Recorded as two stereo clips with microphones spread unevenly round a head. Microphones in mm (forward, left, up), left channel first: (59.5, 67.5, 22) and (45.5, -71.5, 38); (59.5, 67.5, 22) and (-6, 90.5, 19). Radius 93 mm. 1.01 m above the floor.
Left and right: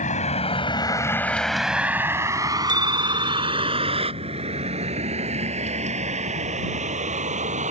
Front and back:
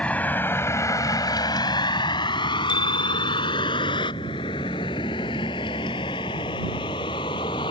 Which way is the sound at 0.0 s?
50° left.